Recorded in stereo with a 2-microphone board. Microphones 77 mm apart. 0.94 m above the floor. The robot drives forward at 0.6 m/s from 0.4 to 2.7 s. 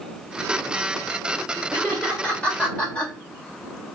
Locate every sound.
1.7 s laughter: 15° left (ahead or behind), 3 m; by 3.1 s 10° left (ahead or behind), 4 m